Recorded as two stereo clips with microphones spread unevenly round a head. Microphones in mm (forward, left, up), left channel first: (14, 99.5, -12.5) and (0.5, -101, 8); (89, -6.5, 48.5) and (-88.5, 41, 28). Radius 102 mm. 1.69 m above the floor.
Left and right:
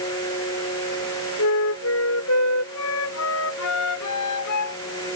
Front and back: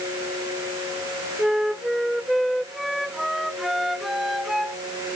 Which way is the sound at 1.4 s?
75° left.